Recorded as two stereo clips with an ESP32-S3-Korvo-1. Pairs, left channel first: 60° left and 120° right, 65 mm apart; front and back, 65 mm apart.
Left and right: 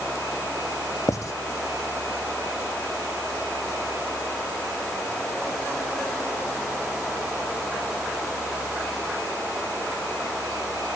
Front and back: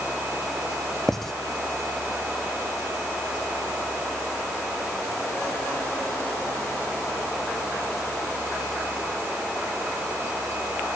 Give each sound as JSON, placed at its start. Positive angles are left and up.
{"t": 1.1, "sound": "writing", "azimuth_deg": 85}